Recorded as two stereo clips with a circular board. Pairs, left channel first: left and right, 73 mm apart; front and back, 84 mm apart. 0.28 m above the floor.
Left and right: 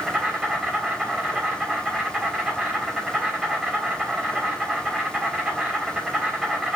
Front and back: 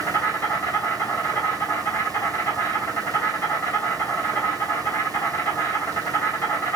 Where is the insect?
25° right, 2.5 m.